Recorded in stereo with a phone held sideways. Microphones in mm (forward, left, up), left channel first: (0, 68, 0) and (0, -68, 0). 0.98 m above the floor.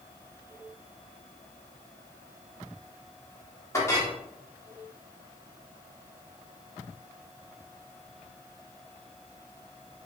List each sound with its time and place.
3.7 s a clink: 20° left (ahead or behind), 1.4 m